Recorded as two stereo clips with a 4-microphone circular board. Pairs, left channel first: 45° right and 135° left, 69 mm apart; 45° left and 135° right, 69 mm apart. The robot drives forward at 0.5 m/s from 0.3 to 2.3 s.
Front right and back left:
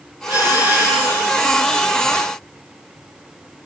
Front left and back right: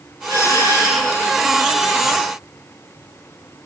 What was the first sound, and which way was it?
A doorbell, 170° right.